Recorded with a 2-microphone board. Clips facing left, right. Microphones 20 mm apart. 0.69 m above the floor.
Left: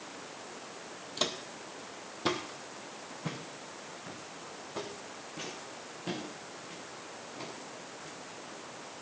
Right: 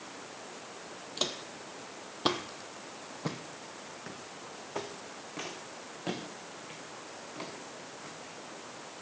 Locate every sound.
1.2 s footsteps: centre (ahead or behind), 1.3 m; by 8.1 s 80° right, 5.5 m